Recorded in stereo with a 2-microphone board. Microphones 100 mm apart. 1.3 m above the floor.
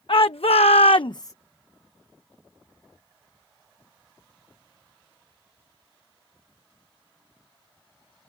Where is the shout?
65° left (ahead or behind); by 1.3 s 30° left (ahead or behind).